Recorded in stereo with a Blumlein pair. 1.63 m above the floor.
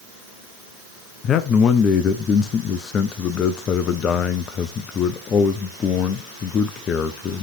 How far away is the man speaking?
About 0.6 m.